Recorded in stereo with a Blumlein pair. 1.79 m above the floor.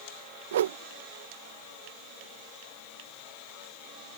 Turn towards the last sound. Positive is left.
turn(degrees=-60)